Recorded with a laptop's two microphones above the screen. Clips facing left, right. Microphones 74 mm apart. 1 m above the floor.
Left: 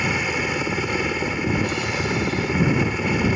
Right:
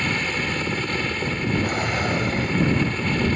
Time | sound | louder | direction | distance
0.0 | a helicopter | left 2 dB | 10° left (ahead or behind) | ?
1.6 | a drawer | right 1 dB | 45° right (ahead or behind) | ?